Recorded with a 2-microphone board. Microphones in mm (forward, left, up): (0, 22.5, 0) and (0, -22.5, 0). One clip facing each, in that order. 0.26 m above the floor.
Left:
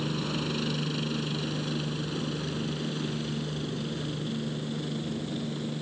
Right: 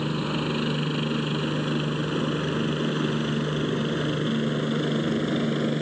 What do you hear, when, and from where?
0.0 s a helicopter: 20° right (ahead or behind); by 5.8 s 55° right (ahead or behind)